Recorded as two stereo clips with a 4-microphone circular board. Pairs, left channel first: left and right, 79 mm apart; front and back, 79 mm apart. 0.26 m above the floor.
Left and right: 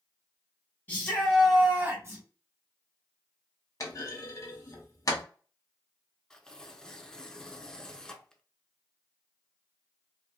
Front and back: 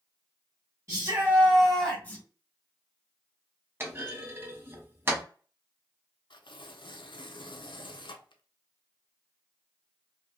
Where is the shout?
150° left, 1.3 m; by 2.2 s 60° right, 1.4 m.